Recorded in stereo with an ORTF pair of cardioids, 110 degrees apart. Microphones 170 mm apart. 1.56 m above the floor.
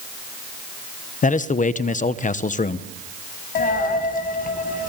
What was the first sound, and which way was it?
A man speaking, 50° left.